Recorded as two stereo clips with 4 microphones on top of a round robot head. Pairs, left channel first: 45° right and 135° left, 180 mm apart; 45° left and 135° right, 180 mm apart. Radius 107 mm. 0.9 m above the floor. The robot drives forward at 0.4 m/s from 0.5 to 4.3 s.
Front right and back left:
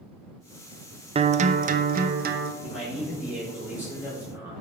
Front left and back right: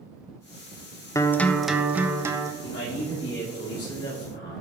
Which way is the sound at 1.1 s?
105° left.